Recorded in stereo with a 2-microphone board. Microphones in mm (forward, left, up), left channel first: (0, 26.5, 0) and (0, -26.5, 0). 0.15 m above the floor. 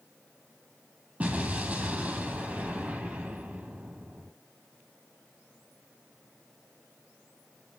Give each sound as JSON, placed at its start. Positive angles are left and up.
{"t": 1.2, "sound": "an explosion", "side_deg": -25, "distance_m": 2.0}